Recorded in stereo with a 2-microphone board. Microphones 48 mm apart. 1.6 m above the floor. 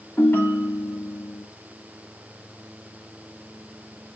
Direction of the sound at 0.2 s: 55° left (ahead or behind).